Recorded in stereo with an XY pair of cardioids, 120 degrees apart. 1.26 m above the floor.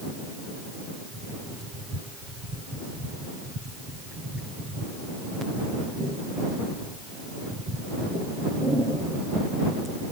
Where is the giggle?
No giggle in this recording.